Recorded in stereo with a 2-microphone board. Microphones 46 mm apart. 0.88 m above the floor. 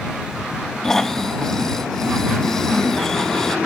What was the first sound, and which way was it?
Snoring, 10° left (ahead or behind).